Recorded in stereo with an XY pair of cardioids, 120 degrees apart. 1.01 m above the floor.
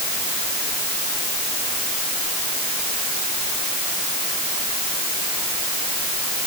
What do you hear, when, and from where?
Only background noise.